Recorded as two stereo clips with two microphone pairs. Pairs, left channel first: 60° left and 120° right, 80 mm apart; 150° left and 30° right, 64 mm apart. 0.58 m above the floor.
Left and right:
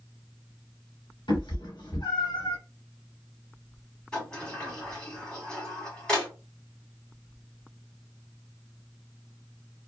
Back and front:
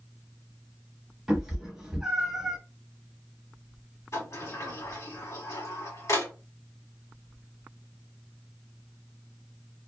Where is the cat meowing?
50° left, 1.3 m; by 2.6 s 45° left, 0.7 m.